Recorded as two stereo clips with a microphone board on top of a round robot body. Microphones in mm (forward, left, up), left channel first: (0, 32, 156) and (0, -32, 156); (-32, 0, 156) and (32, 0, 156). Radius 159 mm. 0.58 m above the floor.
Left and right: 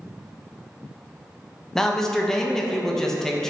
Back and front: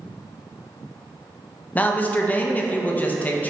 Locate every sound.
1.8 s a man speaking: 165° left, 0.6 m